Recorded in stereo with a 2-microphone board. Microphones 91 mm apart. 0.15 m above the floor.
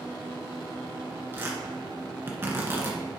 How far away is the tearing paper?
About 1.8 m.